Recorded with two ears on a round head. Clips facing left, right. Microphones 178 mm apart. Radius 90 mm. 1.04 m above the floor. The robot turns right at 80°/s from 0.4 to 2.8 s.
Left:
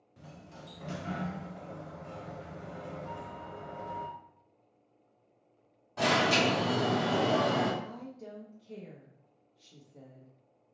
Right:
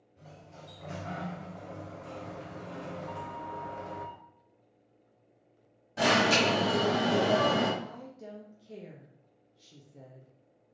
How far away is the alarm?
About 2.0 m.